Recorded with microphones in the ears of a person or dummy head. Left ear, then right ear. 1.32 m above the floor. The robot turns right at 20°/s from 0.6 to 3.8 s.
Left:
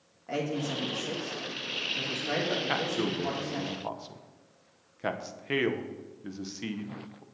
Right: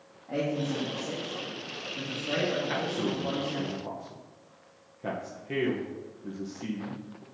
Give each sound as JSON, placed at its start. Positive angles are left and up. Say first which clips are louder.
{"t": 0.3, "sound": "a man speaking", "louder": "right 1 dB", "azimuth_deg": 105, "distance_m": 1.3}
{"t": 2.7, "sound": "a man speaking", "louder": "left 1 dB", "side_deg": 30, "distance_m": 0.7}